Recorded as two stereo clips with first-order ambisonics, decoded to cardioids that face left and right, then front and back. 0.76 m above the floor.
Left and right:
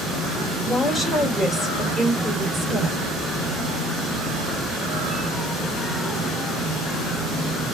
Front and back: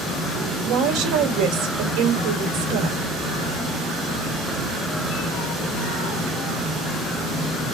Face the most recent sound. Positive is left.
turn(degrees=180)